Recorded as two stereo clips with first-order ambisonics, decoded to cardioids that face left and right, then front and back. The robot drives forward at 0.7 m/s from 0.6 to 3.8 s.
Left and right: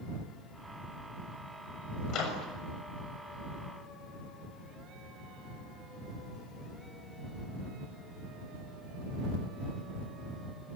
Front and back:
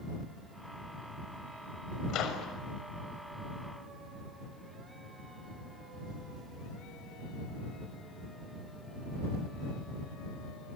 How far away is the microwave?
About 6.5 m.